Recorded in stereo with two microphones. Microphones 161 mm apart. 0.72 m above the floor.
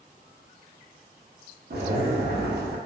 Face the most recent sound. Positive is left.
turn(degrees=-75)  # may be behind; listen again after turning